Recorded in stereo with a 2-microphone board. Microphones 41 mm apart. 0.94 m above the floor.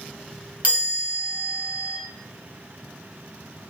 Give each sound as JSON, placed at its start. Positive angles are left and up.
{"t": 0.6, "sound": "a chime", "side_deg": -40, "distance_m": 1.7}